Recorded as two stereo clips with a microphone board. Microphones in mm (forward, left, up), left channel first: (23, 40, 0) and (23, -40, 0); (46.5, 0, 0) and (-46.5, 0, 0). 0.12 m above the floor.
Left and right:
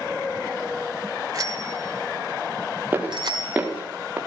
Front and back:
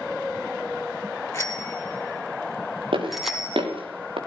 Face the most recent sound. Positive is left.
turn(degrees=-165)